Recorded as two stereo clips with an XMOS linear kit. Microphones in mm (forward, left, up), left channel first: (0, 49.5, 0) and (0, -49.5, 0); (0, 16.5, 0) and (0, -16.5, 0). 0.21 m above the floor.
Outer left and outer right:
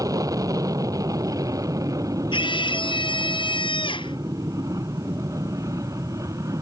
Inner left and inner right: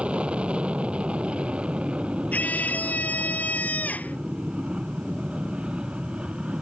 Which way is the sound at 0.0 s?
35° right (ahead or behind).